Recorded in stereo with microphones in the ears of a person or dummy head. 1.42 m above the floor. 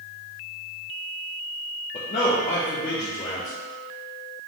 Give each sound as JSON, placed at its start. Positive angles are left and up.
{"t": 1.9, "sound": "a man speaking", "side_deg": 30, "distance_m": 0.6}